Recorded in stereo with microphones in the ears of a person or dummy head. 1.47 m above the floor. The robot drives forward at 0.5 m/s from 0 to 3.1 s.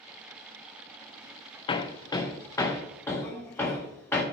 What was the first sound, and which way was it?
Hammering, 25° left (ahead or behind).